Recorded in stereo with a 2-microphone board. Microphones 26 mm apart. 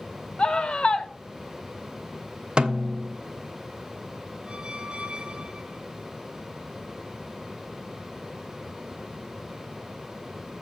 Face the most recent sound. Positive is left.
turn(degrees=-45)  # may be behind; listen again after turning